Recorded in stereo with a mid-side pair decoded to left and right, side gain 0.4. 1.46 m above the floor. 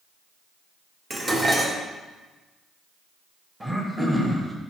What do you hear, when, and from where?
1.1 s dishes clattering: 30° right, 1.6 m
3.6 s throat clearing: 20° right, 2 m